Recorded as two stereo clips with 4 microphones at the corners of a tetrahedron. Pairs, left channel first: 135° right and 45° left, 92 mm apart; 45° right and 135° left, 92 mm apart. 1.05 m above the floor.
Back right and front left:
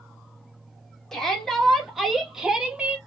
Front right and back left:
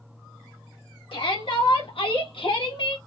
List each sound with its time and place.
1.1 s a shout: 50° right, 1.9 m; by 3.0 s 25° right, 1.1 m